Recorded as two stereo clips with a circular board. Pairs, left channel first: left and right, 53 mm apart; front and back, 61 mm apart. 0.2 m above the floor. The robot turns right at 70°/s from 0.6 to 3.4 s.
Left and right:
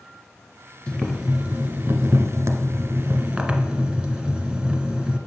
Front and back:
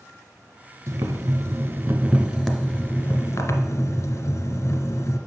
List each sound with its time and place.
0.9 s boiling: 165° left, 0.9 m; by 5.2 s 15° right, 0.9 m